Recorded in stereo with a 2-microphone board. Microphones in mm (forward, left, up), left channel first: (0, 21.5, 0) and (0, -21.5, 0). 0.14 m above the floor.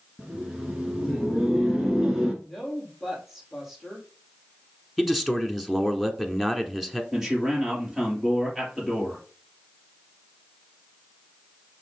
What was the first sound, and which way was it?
Laughter, 10° right (ahead or behind).